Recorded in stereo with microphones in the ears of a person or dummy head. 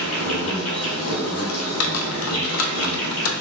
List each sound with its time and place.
0.0 s an insect: 75° left (ahead or behind), 1.7 m
1.5 s typing on a keyboard: 80° left, 0.7 m